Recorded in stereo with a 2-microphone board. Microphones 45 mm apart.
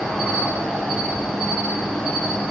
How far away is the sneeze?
No sneeze in this recording.